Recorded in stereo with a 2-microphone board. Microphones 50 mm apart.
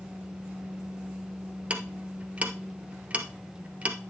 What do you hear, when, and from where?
1.7 s ticking: 25° right (ahead or behind), 1.5 m